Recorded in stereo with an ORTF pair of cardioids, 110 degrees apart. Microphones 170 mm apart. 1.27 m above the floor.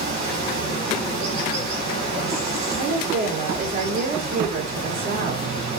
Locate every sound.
0.0 s running water: 70° right, 5 m
2.8 s a woman speaking: 65° right, 4.5 m